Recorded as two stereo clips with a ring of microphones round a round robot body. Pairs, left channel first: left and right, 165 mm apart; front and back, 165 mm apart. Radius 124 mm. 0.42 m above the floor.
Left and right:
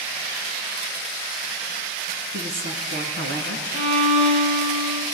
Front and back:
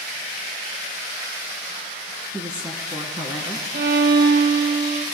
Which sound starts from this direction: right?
A woman speaking, at 2.3 s.